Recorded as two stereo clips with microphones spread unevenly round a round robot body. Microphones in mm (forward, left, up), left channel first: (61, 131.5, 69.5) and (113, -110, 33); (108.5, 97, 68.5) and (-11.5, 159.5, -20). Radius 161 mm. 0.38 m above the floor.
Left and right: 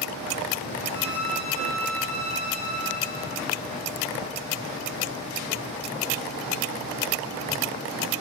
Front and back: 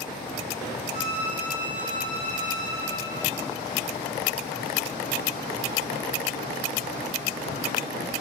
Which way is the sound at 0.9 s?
160° left.